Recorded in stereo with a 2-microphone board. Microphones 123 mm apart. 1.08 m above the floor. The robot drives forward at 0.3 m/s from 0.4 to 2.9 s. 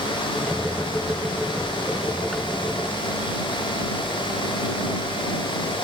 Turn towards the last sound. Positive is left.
No sound to turn to.